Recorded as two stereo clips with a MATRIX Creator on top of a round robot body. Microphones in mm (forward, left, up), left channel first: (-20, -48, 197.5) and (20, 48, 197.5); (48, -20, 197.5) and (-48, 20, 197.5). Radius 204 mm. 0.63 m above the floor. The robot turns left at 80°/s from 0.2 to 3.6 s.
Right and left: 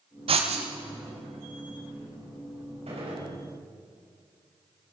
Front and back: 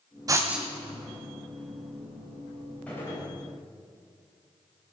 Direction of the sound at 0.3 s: 100° left.